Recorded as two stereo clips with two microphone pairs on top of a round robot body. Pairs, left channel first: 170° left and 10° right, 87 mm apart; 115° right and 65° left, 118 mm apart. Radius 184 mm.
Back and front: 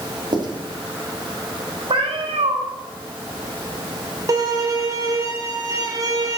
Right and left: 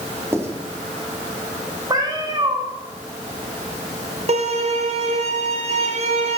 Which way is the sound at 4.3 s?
40° left.